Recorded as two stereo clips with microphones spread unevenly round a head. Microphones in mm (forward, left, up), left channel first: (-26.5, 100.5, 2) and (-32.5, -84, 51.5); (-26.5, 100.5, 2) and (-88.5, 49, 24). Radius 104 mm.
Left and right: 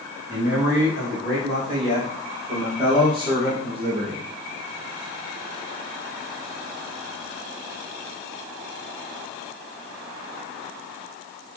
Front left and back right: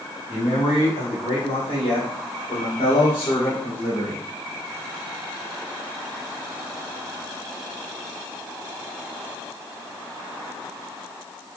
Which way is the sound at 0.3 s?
20° right.